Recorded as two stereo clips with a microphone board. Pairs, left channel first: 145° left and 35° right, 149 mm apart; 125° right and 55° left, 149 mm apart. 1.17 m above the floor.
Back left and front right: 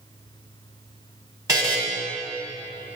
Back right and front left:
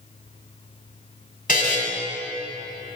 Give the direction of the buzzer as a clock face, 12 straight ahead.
3 o'clock.